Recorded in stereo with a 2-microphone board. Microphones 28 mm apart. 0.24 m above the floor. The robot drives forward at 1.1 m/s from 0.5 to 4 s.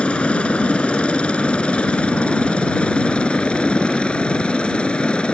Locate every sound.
0.0 s a helicopter: 45° left (ahead or behind); by 5.4 s 40° left (ahead or behind)